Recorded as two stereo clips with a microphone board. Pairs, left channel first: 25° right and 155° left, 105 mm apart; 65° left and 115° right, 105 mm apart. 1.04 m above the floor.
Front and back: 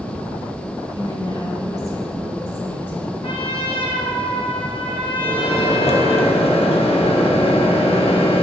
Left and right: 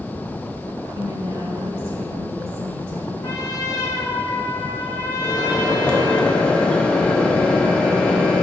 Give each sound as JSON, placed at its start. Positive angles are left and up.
{"t": 0.9, "sound": "a woman speaking", "azimuth_deg": -60, "distance_m": 2.0}
{"t": 3.2, "sound": "a trumpet", "azimuth_deg": 15, "distance_m": 1.2}
{"t": 5.2, "sound": "a microwave", "azimuth_deg": -10, "distance_m": 1.1}